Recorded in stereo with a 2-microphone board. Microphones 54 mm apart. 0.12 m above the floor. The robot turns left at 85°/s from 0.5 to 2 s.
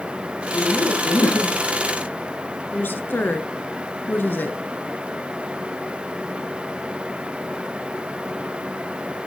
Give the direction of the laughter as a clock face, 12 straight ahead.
7 o'clock.